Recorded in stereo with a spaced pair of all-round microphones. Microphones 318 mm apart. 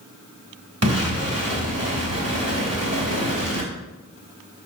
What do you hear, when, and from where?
0.8 s an explosion: 50° right (ahead or behind), 2.5 m